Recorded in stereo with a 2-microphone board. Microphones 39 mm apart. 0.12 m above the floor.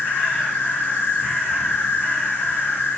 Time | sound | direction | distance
0.0 | an insect | 55° left (ahead or behind) | 1.4 m